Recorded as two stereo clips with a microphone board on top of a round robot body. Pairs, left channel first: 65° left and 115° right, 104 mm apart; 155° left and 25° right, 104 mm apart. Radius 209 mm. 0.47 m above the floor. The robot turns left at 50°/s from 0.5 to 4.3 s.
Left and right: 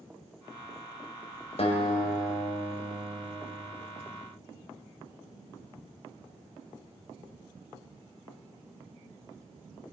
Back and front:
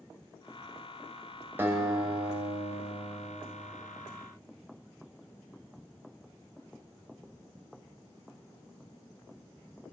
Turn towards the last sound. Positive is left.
turn(degrees=-90)